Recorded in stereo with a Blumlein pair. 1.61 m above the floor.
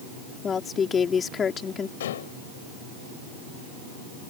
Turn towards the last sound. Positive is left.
turn(degrees=60)